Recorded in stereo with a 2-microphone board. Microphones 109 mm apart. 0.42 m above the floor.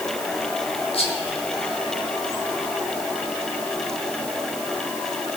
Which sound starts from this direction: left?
Whispering, at 0.9 s.